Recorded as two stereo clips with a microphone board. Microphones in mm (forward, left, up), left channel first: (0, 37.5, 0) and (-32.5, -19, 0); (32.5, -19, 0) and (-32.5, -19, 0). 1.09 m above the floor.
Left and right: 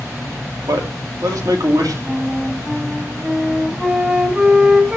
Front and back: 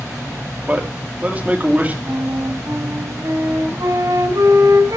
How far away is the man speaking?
About 3 m.